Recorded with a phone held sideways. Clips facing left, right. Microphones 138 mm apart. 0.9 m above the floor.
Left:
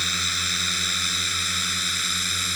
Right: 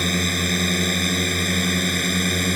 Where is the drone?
55° right (ahead or behind).